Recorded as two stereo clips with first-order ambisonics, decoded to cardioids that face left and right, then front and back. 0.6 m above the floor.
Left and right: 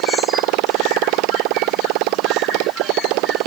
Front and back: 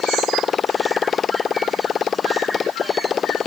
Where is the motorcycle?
70° right.